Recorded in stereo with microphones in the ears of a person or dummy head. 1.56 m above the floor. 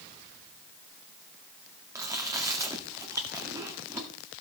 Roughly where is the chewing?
Centre.